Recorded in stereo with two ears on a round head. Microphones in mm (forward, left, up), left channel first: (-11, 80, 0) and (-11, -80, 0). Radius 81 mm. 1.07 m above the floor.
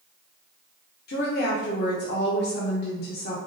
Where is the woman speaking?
60° left (ahead or behind), 0.8 m.